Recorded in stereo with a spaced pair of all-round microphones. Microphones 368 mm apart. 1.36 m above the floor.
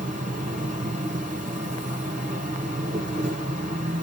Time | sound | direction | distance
0.0 | an insect | 20° right (ahead or behind) | 2.0 m